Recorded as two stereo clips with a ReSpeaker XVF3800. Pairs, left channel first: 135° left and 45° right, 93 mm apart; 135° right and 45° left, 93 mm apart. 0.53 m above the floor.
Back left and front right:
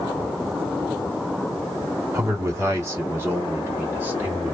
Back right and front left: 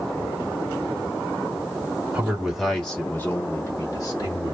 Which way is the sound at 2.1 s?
20° right.